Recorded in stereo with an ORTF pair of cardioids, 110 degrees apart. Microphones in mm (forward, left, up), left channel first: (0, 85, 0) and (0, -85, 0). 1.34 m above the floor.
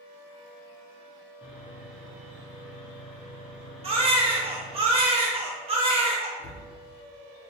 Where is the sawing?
5° right, 0.7 m.